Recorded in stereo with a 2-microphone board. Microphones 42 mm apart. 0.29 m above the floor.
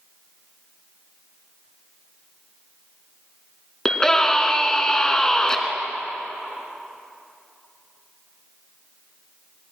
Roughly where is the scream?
Centre.